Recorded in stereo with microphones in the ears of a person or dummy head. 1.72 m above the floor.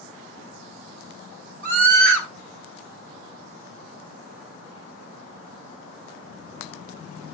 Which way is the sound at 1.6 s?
65° right (ahead or behind).